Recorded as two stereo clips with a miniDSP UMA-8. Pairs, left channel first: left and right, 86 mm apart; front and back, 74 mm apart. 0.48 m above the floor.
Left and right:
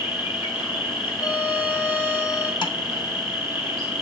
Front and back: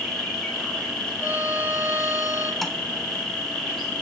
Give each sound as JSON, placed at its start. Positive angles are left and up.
{"t": 0.0, "sound": "an insect", "azimuth_deg": 90, "distance_m": 2.5}
{"t": 1.2, "sound": "a violin", "azimuth_deg": 130, "distance_m": 1.4}
{"t": 2.6, "sound": "tapping", "azimuth_deg": 90, "distance_m": 0.6}